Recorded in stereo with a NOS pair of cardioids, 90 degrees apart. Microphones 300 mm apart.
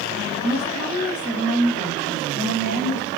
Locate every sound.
0.4 s a woman speaking: 15° left, 1.9 m